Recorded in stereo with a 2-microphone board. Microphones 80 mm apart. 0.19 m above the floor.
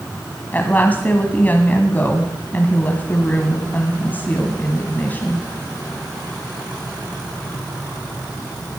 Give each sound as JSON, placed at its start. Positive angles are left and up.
{"t": 0.5, "sound": "a woman speaking", "side_deg": 25, "distance_m": 1.5}